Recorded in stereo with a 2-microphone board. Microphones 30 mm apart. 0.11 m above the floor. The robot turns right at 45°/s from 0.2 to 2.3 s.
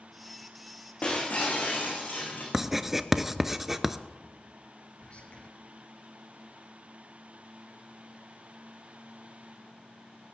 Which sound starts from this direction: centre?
Writing, at 2.5 s.